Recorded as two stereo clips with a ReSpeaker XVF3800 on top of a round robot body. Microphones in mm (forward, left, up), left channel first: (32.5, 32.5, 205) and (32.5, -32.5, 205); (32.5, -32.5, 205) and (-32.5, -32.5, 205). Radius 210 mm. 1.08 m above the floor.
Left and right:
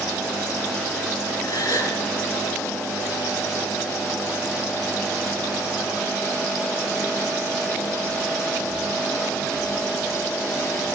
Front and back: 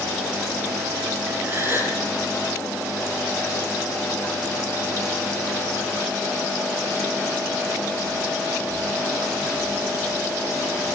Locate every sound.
1.4 s a gasp: 120° left, 5.5 m